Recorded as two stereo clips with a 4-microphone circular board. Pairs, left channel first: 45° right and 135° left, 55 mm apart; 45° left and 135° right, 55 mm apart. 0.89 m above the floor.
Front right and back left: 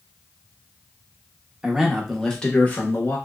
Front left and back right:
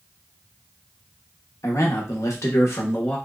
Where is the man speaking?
60° left, 0.8 m; by 3.2 s straight ahead, 0.8 m.